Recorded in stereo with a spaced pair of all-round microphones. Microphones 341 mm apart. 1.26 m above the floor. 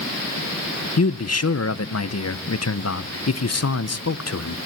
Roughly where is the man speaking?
Left.